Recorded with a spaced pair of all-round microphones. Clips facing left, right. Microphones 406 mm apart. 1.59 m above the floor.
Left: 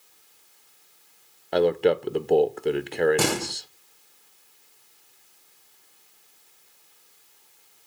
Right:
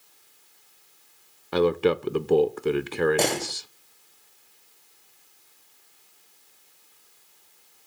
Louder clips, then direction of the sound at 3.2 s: Even; 20° left (ahead or behind).